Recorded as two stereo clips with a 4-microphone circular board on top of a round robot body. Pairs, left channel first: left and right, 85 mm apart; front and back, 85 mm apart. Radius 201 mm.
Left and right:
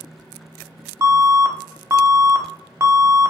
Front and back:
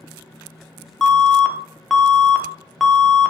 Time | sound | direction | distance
1.0 | an alarm | 90° right | 0.9 m